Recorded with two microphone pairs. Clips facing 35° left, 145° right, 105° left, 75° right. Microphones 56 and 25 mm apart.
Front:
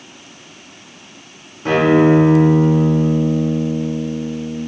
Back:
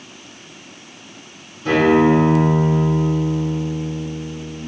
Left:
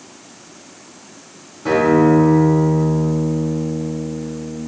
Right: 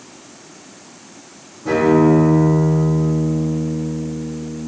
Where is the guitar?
75° left, 3 m.